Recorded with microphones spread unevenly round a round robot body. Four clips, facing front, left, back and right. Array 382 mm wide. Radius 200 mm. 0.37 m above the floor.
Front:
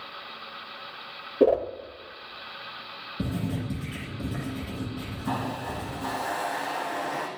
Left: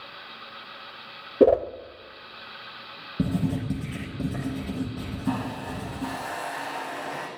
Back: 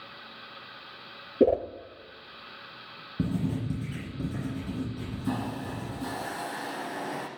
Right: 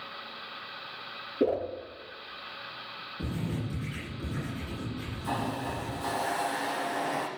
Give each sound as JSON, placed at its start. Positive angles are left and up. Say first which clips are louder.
{"t": 1.4, "sound": "a whoosh", "louder": "left 10 dB, front 2 dB", "azimuth_deg": 120, "distance_m": 0.9}
{"t": 3.2, "sound": "writing", "louder": "left 8 dB, back 1 dB", "azimuth_deg": 120, "distance_m": 8.5}
{"t": 5.2, "sound": "a hiss", "louder": "left 2 dB, front 2 dB", "azimuth_deg": -155, "distance_m": 3.5}